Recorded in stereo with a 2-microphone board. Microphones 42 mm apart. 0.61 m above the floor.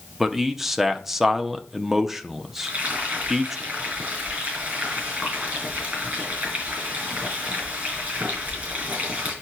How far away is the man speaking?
About 0.9 m.